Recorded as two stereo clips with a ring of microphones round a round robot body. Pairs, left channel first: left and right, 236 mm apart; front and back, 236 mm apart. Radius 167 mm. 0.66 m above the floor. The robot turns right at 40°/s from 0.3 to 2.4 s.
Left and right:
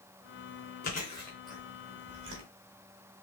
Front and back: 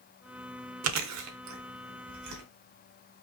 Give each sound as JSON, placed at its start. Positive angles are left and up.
{"t": 0.8, "sound": "chewing", "azimuth_deg": 155, "distance_m": 0.8}